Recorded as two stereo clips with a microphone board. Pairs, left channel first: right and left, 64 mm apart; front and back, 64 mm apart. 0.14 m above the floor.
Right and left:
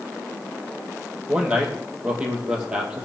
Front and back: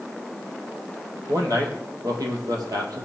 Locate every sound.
1.3 s a man speaking: 165° left, 4 m